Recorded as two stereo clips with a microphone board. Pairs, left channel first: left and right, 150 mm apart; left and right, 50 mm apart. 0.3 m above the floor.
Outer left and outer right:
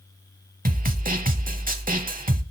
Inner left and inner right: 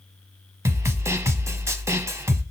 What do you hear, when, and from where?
0.7 s a snare drum: 70° right (ahead or behind), 0.7 m